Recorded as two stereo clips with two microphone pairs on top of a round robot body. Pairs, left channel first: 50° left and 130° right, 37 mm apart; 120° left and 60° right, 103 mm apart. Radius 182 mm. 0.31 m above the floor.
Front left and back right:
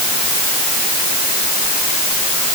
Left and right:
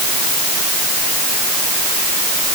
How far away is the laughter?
No laughter in this recording.